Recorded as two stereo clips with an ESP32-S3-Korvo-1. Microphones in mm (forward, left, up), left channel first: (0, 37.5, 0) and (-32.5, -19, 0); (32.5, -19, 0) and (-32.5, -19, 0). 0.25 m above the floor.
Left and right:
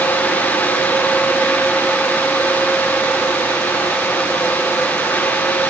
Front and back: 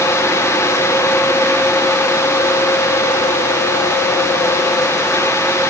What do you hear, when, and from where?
Only background noise.